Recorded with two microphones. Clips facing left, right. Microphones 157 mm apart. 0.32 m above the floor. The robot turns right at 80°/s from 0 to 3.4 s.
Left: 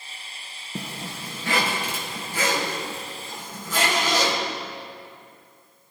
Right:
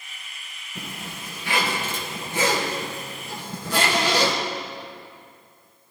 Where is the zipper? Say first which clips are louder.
Left 3 dB; 75° left, 3 m; by 4.3 s 70° right, 3 m.